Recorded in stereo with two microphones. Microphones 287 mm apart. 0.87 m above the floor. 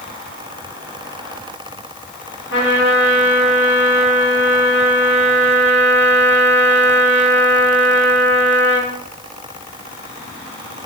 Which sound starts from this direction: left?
A trumpet, at 2.5 s.